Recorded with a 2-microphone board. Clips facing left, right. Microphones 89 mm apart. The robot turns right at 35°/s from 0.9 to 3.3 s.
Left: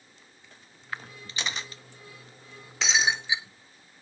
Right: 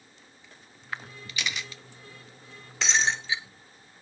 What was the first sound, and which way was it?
A camera shutter, 30° left (ahead or behind).